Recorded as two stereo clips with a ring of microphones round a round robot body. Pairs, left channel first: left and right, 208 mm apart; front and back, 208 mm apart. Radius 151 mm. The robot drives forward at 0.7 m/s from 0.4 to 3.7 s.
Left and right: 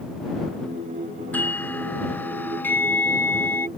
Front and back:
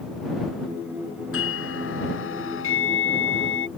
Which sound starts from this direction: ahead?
A doorbell, at 1.3 s.